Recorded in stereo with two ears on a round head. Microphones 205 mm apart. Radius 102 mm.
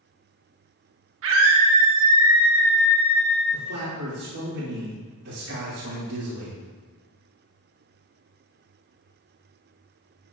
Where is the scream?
65° right (ahead or behind), 1.4 m.